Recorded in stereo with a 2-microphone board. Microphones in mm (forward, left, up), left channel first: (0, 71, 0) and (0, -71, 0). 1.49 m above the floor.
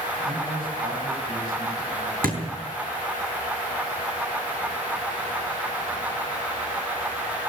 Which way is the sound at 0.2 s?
90° right.